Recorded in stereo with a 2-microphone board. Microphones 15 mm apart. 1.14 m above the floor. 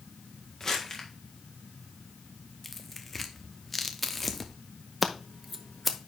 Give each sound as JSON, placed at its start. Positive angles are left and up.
{"t": 0.6, "sound": "crumpling", "side_deg": 25, "distance_m": 1.7}
{"t": 2.6, "sound": "tearing paper", "side_deg": 10, "distance_m": 0.8}
{"t": 5.0, "sound": "scissors", "side_deg": 5, "distance_m": 0.7}